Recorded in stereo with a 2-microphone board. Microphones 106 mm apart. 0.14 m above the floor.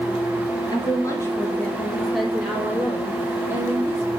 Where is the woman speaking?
45° left (ahead or behind), 2.5 m; by 4.1 s 30° right (ahead or behind), 5 m.